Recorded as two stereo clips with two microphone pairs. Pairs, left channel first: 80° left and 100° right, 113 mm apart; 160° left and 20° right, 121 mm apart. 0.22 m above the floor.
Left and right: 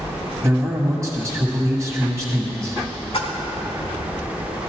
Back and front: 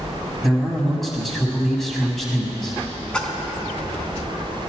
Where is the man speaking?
120° right, 1.5 m.